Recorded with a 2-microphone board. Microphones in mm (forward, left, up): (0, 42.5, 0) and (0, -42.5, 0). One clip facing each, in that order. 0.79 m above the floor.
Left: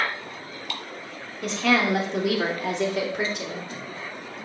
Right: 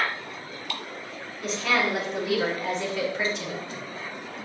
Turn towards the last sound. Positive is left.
turn(degrees=55)  # may be behind; listen again after turning